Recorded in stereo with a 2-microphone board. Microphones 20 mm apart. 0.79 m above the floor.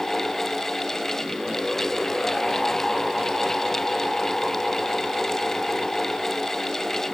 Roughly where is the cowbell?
I don't hear a cowbell.